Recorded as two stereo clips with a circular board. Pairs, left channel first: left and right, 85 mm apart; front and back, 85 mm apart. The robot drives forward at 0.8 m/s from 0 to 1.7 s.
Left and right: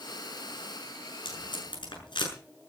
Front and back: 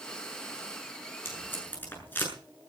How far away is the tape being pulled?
About 7 m.